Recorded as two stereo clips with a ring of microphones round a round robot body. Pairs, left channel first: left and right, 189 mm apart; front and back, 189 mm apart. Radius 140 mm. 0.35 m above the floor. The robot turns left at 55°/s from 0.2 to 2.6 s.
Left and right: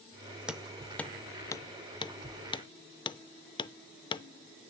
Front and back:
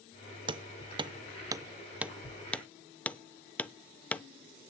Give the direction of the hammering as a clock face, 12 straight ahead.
6 o'clock.